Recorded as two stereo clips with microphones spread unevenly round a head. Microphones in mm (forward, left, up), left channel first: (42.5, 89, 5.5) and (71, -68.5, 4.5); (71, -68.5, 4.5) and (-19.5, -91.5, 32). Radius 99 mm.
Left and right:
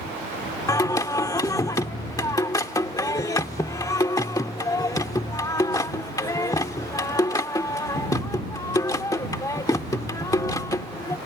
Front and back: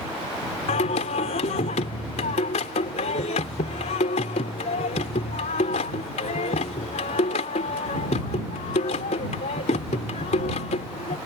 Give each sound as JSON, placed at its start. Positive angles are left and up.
{"t": 0.7, "sound": "singing", "azimuth_deg": 35}